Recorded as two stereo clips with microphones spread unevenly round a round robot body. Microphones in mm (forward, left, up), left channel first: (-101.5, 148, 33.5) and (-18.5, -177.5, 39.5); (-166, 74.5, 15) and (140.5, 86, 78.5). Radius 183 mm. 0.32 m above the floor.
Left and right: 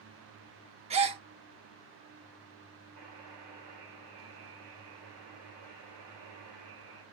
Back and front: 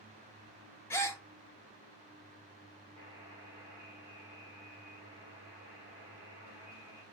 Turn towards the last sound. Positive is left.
turn(degrees=-75)